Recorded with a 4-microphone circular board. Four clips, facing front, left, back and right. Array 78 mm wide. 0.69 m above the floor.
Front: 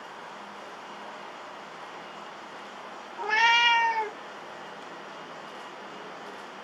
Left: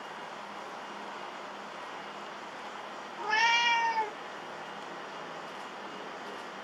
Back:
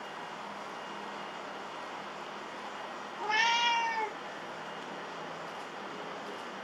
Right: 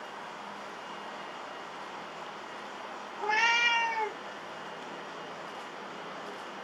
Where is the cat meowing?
15° right, 1.0 m.